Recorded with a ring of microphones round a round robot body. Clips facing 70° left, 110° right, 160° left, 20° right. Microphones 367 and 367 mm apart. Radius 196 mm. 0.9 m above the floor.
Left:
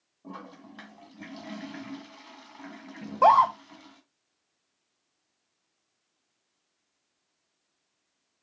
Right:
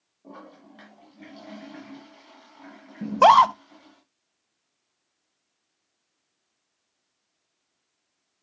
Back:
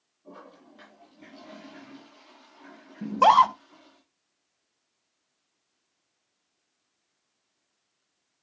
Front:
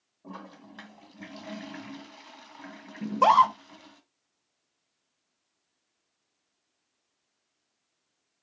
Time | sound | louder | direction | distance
0.2 | a toilet flushing | left 1 dB, front 3 dB | 5° left | 2 m
3.0 | a scream | right 5 dB, back 2 dB | 115° right | 1.0 m